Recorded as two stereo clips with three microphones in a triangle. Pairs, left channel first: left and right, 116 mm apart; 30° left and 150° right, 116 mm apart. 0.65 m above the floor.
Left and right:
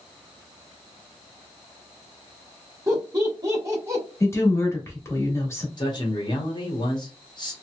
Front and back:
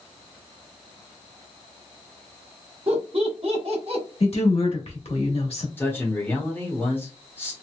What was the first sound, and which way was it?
Laughter, 145° right.